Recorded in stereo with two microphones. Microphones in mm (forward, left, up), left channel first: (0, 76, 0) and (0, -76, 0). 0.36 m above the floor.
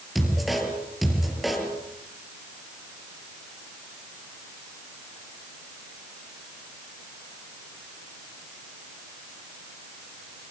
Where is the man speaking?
Centre (ahead or behind), 6 m.